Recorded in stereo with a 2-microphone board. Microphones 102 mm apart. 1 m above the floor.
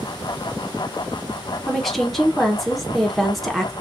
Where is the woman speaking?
Centre (ahead or behind), 0.9 m.